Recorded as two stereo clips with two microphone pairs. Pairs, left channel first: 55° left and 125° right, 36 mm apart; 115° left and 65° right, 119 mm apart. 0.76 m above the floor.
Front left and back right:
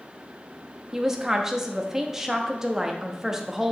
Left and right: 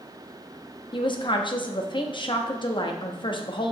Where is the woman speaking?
150° left, 0.7 m.